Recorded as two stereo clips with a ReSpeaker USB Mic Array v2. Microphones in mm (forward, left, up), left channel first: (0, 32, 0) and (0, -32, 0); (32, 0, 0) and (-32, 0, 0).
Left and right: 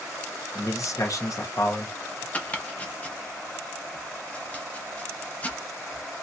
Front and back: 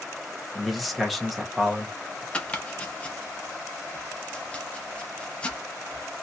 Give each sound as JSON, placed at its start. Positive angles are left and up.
{"t": 0.6, "sound": "a man speaking", "azimuth_deg": 90, "distance_m": 1.0}
{"t": 2.3, "sound": "chopping", "azimuth_deg": 50, "distance_m": 0.8}